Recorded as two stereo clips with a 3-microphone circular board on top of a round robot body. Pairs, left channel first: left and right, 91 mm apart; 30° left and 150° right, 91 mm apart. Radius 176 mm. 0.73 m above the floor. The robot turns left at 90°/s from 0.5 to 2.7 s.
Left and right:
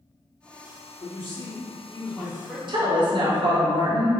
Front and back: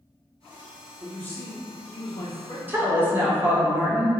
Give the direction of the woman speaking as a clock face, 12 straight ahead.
3 o'clock.